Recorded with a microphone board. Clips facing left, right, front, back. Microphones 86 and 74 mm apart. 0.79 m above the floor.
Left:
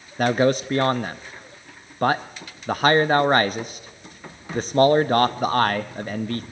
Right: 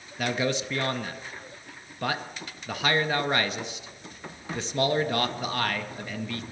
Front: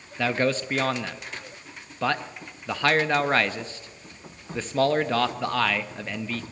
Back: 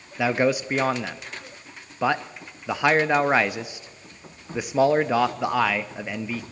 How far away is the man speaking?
About 0.5 m.